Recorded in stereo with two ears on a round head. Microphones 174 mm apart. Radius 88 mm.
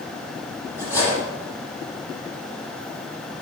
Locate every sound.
0.8 s cutlery clinking: 10° right (ahead or behind), 7 m